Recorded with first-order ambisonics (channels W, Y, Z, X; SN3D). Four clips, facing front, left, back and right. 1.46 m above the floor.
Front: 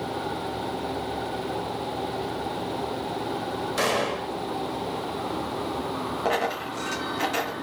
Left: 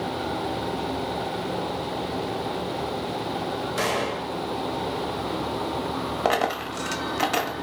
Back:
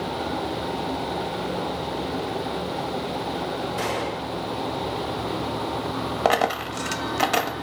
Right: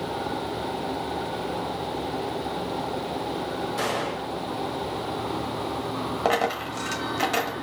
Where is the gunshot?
30° left, 1.5 m.